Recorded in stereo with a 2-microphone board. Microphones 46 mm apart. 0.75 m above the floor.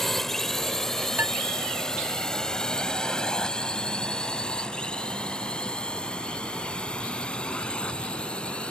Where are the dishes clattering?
55° right (ahead or behind).